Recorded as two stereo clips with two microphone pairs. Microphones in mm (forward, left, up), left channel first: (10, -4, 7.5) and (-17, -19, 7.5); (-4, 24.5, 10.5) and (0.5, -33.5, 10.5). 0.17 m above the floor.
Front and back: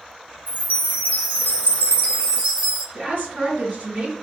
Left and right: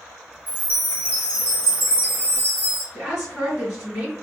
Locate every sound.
0.5 s a chime: 135° right, 1.3 m
2.9 s a woman speaking: 135° right, 2.0 m